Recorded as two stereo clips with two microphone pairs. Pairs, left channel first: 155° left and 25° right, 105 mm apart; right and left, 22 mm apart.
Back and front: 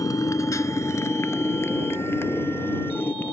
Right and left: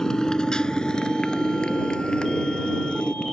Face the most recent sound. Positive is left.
turn(degrees=-135)